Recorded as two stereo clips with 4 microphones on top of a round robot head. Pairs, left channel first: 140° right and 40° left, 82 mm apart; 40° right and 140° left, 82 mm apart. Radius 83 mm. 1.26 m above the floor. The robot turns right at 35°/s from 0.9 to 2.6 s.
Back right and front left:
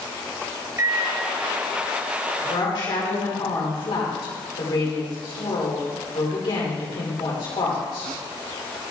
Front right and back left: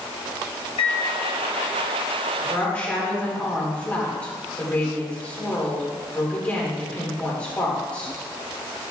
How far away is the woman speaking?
About 4 m.